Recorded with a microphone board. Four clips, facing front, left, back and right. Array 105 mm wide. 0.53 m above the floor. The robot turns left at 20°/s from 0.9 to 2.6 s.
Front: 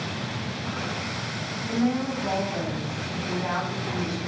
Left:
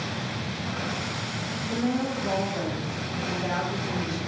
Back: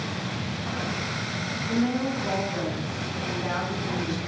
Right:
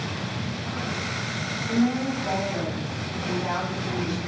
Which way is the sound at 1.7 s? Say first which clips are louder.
Right 4 dB, even; 25° right.